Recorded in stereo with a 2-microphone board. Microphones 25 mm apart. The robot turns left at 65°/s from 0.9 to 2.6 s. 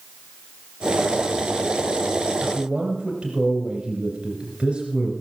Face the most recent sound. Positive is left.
turn(degrees=-45)  # may be behind; listen again after turning